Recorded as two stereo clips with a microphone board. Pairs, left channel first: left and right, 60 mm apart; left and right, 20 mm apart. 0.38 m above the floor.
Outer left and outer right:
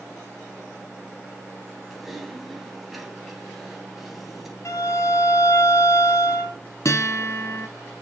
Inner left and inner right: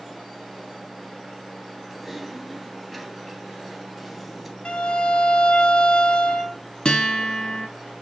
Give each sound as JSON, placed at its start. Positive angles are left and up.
{"t": 1.9, "sound": "typing on a keyboard", "side_deg": -5, "distance_m": 2.5}
{"t": 4.7, "sound": "a violin", "side_deg": 55, "distance_m": 1.6}
{"t": 6.8, "sound": "a guitar", "side_deg": 55, "distance_m": 2.5}